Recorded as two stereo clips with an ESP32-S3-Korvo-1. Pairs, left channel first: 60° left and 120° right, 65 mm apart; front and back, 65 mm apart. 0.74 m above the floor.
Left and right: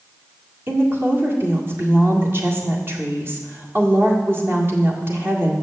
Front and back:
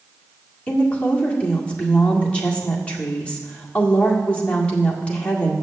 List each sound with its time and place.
0.7 s a woman speaking: 70° right, 1.8 m